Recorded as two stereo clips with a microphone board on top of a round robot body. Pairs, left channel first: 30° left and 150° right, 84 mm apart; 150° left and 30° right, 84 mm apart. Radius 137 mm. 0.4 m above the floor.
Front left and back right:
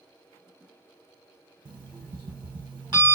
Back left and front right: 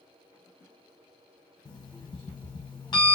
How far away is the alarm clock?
About 1.4 m.